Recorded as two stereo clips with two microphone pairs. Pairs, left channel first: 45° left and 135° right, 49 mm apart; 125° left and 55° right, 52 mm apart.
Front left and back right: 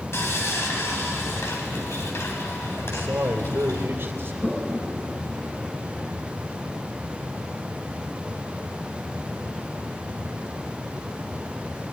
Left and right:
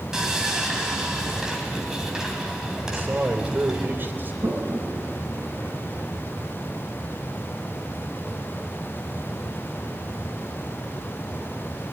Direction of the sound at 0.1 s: 25° left.